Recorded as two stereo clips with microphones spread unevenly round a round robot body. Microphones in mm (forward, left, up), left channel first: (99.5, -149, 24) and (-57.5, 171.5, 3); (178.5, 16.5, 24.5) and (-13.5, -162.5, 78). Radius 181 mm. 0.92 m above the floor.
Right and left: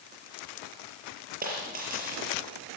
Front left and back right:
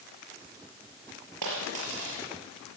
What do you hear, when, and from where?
1.4 s a dropped coin: 175° right, 5 m